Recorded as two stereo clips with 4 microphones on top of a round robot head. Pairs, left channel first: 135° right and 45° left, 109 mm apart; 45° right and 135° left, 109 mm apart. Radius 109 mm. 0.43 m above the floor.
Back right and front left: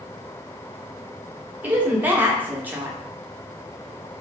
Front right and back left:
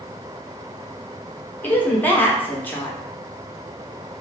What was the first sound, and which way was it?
A woman speaking, straight ahead.